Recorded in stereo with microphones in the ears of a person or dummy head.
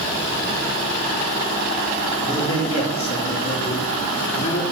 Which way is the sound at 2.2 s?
20° left (ahead or behind).